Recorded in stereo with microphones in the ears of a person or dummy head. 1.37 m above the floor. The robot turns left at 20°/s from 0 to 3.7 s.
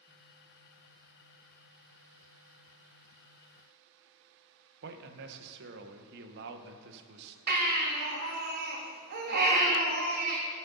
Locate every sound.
4.8 s a man speaking: 60° right (ahead or behind), 0.9 m
7.5 s a baby crying: 50° right (ahead or behind), 1.5 m